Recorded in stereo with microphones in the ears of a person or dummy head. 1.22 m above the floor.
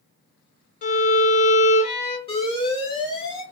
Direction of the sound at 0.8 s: 35° left (ahead or behind).